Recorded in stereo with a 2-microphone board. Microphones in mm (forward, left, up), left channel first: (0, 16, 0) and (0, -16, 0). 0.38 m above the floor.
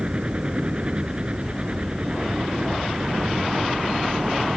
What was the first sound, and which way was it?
A helicopter, 30° right (ahead or behind).